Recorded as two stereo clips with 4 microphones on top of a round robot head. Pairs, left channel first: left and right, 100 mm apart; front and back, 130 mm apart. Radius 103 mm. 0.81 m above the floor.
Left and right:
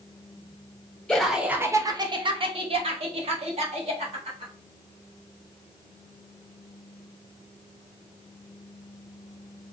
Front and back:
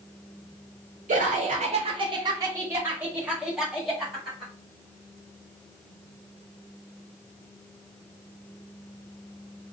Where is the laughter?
170° left, 0.6 m; by 4.5 s 90° right, 1.6 m.